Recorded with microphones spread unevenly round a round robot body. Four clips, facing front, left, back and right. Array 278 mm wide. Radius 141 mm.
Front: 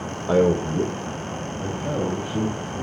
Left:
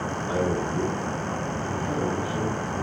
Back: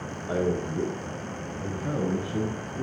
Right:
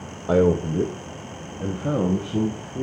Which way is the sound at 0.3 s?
50° right.